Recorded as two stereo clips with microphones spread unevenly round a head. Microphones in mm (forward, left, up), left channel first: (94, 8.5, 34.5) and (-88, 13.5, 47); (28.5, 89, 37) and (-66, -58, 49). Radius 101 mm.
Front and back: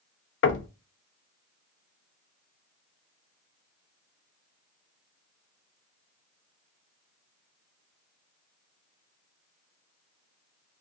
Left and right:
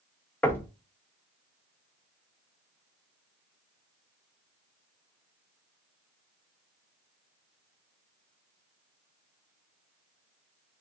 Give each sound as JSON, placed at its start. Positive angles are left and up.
{"t": 0.4, "sound": "knocking", "azimuth_deg": -25, "distance_m": 0.5}